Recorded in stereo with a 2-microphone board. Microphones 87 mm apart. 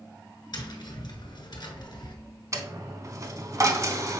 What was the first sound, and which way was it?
Tapping, 55° left (ahead or behind).